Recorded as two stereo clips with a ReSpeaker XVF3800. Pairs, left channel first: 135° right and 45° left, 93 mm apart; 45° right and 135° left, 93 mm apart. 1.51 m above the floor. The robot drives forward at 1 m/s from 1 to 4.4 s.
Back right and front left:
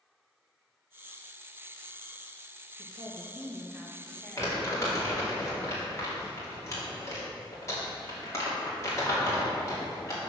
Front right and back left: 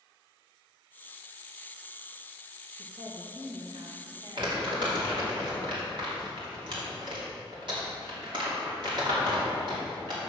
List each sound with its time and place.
2.8 s a woman speaking: 75° left, 1.3 m; by 5.4 s 135° left, 1.8 m
4.4 s crumpling: 165° left, 2.5 m